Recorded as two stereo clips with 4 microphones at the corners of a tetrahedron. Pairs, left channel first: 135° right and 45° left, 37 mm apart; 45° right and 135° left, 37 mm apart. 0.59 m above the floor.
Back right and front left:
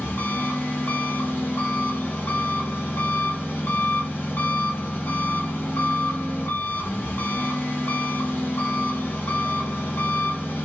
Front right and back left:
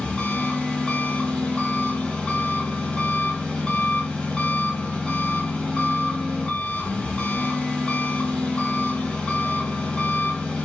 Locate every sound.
0.0 s an engine running: 115° right, 4 m